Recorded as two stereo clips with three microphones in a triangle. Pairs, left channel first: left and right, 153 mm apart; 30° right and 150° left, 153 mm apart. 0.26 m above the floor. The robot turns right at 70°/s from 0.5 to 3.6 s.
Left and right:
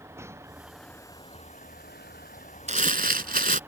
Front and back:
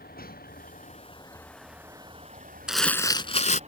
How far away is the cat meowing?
I don't hear a cat meowing.